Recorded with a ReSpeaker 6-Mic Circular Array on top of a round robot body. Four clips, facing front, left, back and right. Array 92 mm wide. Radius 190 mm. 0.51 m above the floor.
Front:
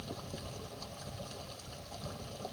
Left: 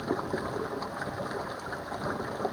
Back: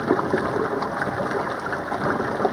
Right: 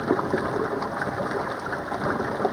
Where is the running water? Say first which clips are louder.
Right 8 dB, back 24 dB; 150° right.